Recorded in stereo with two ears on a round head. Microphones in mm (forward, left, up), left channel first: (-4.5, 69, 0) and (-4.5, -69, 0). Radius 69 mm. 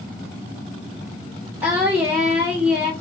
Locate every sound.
1.6 s singing: 10° right (ahead or behind), 1.5 m